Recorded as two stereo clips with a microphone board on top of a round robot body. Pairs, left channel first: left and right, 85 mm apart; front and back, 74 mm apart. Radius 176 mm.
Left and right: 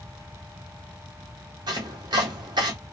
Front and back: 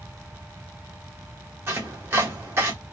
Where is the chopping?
125° right, 0.5 m.